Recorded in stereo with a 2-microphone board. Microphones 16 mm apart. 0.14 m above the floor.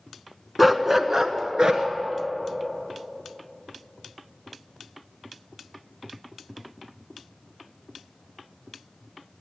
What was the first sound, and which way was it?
A dog barking, 5° right (ahead or behind).